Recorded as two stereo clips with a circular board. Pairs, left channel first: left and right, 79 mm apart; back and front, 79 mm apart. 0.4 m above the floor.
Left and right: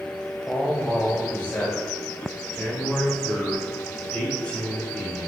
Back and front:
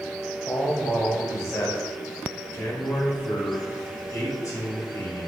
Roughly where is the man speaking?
Behind.